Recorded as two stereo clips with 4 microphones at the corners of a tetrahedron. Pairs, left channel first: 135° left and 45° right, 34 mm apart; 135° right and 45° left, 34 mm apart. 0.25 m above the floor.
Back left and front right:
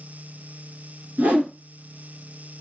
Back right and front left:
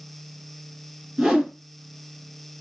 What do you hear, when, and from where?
1.2 s a whoosh: 30° right, 1.1 m